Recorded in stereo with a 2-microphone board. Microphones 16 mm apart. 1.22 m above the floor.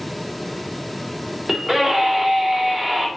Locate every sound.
1.5 s a scream: 25° right (ahead or behind), 2.5 m